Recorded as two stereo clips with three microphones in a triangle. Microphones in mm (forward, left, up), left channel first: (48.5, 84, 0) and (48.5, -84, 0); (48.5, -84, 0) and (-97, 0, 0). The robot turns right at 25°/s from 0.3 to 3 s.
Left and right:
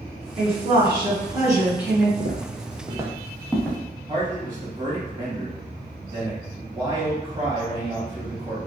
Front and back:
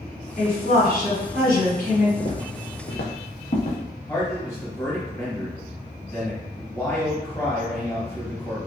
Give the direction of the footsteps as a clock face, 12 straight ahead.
3 o'clock.